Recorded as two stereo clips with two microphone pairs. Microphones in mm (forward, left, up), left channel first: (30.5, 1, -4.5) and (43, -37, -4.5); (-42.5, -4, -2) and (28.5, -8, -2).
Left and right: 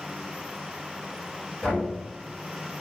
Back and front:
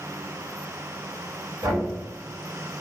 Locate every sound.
1.6 s knocking: 30° left, 1.5 m